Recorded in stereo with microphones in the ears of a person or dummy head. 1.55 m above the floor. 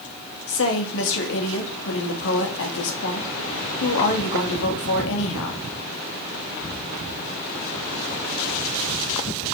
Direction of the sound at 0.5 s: 70° left (ahead or behind).